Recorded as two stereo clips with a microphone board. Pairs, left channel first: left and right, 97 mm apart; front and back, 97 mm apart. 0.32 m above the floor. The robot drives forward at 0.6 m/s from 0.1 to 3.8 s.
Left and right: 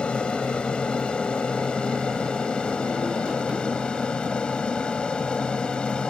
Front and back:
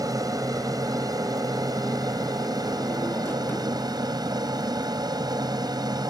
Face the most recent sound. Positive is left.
turn(degrees=165)